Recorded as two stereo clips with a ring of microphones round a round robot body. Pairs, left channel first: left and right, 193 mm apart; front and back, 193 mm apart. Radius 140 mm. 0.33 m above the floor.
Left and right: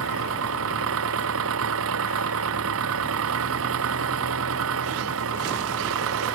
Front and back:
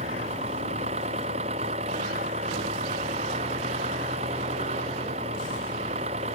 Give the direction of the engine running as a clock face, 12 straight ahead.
4 o'clock.